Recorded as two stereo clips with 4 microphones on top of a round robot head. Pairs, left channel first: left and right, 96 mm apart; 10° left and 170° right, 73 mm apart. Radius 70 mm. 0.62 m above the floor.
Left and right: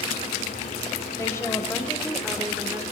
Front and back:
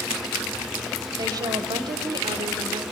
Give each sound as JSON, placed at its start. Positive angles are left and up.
{"t": 1.2, "sound": "a woman speaking", "azimuth_deg": 155, "distance_m": 2.5}